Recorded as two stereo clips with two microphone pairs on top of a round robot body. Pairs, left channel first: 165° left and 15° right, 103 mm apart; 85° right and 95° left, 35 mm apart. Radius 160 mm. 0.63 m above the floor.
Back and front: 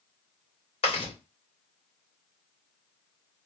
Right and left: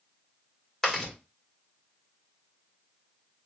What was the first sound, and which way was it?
Chewing, 170° right.